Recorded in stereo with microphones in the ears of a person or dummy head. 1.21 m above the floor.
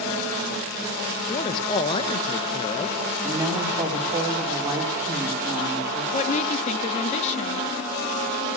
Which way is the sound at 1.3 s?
25° left (ahead or behind).